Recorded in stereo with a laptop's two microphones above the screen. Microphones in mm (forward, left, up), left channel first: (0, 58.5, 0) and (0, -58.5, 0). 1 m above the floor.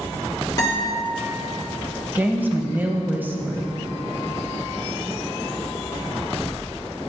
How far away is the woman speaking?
About 0.8 m.